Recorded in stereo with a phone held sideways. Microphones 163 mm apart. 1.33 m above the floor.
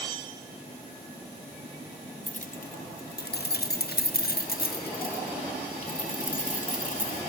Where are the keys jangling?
45° left (ahead or behind), 0.9 m; by 7.2 s 55° left (ahead or behind), 3 m.